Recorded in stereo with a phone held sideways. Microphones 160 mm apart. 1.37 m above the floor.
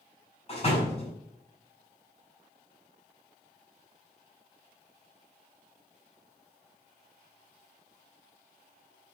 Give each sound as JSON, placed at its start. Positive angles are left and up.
{"t": 0.5, "sound": "a door slam", "side_deg": 40, "distance_m": 6.0}